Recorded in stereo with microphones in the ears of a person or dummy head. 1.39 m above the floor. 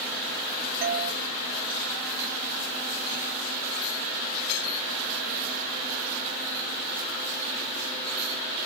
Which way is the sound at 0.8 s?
50° right (ahead or behind).